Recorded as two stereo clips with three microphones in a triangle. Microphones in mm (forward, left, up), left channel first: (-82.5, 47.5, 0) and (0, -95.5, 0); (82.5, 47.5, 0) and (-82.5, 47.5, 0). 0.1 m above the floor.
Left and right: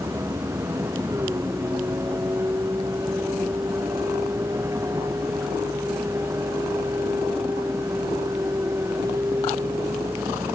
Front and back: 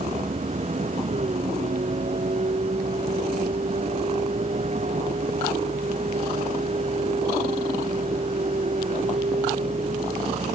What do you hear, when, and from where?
0.0 s a vehicle: 135° right